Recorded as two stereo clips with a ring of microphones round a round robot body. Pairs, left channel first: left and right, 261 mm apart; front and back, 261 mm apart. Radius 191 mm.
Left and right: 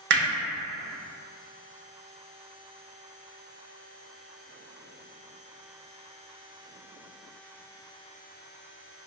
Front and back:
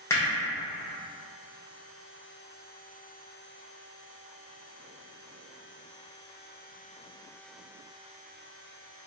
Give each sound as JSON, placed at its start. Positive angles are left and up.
{"t": 0.1, "sound": "hammering", "azimuth_deg": -75, "distance_m": 0.8}